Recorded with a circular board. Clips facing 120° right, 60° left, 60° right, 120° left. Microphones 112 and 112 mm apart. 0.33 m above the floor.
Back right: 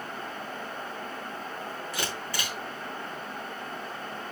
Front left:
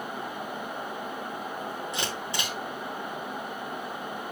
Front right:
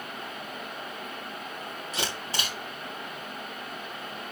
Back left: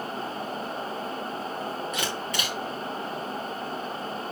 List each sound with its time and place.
1.9 s a camera shutter: 5° right, 3.5 m